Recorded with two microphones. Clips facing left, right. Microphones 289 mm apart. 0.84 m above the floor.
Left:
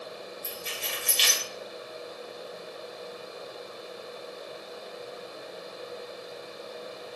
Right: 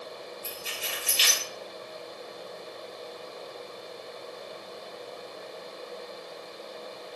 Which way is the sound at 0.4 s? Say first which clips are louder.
Left 1 dB; 5° right (ahead or behind).